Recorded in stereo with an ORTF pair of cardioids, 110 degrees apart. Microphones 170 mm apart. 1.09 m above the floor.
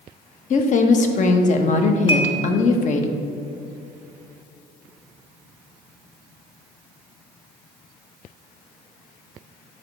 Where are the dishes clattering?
25° left, 1.1 m.